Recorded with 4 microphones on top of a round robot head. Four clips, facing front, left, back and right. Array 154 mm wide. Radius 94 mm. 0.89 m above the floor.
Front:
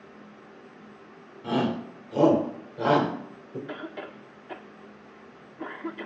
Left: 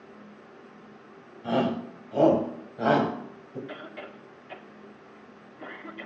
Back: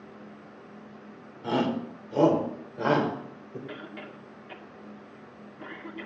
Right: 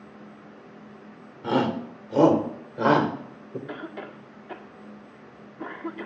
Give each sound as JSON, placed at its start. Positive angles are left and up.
{"t": 1.4, "sound": "a shout", "azimuth_deg": -95, "distance_m": 3.5}
{"t": 3.7, "sound": "a cough", "azimuth_deg": -55, "distance_m": 1.9}